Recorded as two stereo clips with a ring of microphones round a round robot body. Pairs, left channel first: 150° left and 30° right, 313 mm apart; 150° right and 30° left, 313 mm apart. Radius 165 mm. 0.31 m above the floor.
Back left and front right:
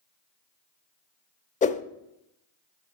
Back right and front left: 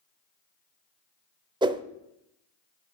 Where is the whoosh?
95° left, 0.6 m.